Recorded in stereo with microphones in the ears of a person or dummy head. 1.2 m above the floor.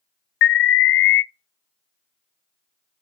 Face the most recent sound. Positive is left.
turn(degrees=60)  # may be behind; listen again after turning